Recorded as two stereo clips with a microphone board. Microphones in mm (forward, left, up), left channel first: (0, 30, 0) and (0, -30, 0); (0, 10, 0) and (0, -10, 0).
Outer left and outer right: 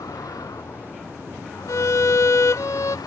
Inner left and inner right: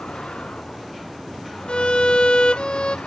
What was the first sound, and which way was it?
A vehicle, 85° left.